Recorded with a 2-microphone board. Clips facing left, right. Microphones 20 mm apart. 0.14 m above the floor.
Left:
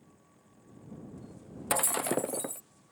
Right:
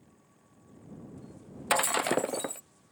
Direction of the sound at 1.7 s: 30° right (ahead or behind).